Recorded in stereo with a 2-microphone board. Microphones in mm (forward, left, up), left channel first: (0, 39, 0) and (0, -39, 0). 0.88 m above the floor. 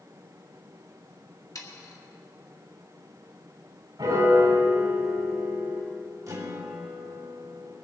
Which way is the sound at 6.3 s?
45° right (ahead or behind).